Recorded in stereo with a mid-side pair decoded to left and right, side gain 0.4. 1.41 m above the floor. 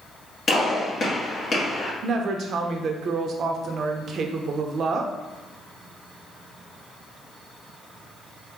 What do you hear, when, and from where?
0.5 s a gunshot: 45° left, 1.9 m
2.0 s a woman speaking: 65° right, 0.7 m